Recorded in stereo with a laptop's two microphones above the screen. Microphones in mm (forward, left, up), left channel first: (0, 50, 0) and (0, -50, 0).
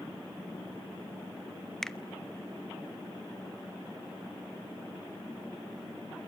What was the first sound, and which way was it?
A finger snap, 5° left (ahead or behind).